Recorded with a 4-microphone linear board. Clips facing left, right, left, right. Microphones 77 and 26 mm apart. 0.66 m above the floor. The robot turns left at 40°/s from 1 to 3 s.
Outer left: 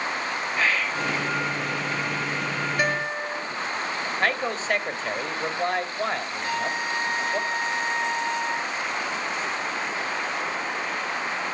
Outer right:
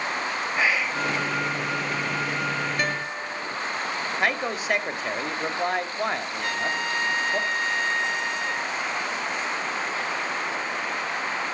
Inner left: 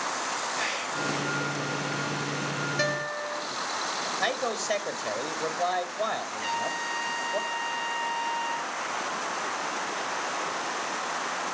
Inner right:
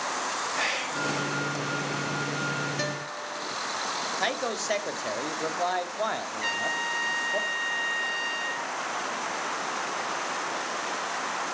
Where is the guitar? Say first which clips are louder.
Outer left 3 dB, inner left 4 dB; 5° left (ahead or behind), 0.7 m; by 3.5 s 15° left (ahead or behind), 0.7 m.